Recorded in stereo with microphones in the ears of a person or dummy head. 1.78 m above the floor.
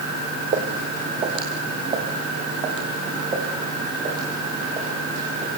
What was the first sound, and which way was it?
Footsteps, 35° right (ahead or behind).